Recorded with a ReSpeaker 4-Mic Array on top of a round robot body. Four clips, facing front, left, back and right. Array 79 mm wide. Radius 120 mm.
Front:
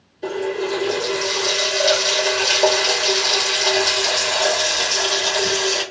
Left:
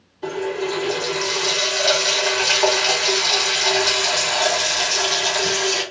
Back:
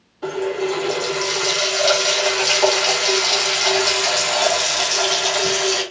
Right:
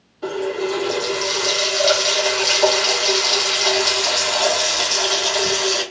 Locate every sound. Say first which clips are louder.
0.2 s a running tap: right 1 dB, back 1 dB; 145° right, 1.8 m